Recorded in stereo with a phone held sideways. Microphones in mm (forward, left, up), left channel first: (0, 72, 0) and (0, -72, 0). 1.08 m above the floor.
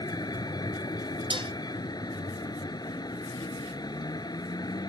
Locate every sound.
0.0 s a vehicle: 30° left (ahead or behind)
1.3 s dishes clattering: 40° right (ahead or behind)